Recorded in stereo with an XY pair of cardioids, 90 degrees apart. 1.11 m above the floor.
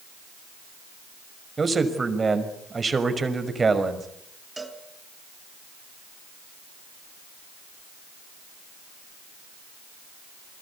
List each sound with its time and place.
1.6 s a man speaking: 30° right, 5.5 m
4.6 s a cowbell: 15° right, 3.5 m